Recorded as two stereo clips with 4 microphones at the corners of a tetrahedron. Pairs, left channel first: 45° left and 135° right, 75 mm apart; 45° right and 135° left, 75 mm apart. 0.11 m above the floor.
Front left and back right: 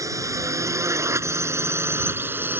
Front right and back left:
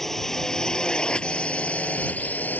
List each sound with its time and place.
0.0 s a drone: 130° right; by 2.6 s 95° right